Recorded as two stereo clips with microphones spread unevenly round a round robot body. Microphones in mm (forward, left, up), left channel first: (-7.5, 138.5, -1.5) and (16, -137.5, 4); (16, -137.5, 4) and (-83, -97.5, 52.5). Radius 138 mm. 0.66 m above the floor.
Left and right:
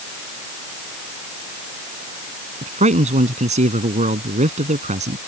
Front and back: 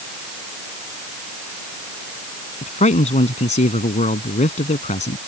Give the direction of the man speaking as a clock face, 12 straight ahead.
1 o'clock.